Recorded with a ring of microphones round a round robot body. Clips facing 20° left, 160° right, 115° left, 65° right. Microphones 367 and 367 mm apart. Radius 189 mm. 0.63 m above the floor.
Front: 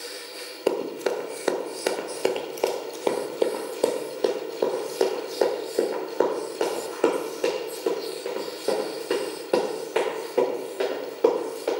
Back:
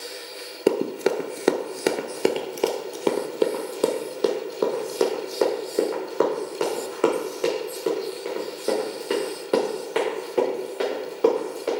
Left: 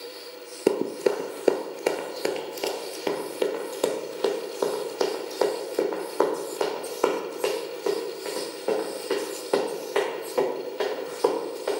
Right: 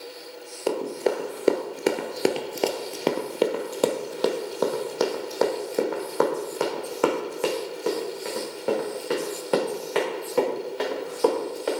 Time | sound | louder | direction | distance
0.7 | running footsteps | back 4 dB, left 3 dB | 155° left | 0.7 m